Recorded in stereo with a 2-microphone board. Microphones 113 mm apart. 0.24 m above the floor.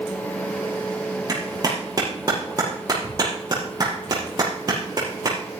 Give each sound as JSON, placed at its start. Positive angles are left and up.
{"t": 1.3, "sound": "a clap", "side_deg": -35, "distance_m": 5.5}